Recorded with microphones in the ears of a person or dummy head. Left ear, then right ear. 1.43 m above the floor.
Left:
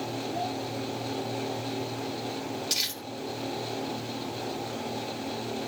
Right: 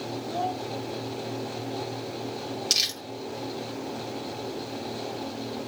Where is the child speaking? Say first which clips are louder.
Right 4 dB; 40° right (ahead or behind), 1.1 m.